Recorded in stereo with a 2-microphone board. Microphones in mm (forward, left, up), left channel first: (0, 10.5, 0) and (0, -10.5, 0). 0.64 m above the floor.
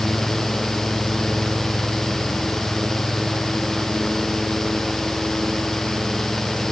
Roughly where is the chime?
I don't hear a chime.